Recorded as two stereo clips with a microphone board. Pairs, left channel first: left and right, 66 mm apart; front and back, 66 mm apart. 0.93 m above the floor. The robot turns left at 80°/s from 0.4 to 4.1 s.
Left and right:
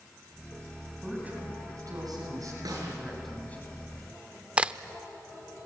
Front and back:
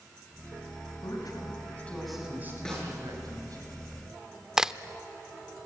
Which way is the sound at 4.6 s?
115° right.